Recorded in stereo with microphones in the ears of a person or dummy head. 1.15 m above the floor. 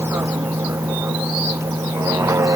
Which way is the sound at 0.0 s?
10° right (ahead or behind).